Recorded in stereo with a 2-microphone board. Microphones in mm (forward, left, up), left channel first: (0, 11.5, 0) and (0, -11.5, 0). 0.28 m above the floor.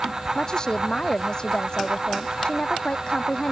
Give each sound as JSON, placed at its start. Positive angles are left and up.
{"t": 0.3, "sound": "a woman speaking", "side_deg": 35}